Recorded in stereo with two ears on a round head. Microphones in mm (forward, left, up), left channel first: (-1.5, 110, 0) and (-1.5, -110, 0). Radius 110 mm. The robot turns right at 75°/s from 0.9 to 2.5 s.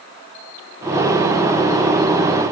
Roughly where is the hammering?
I don't hear hammering.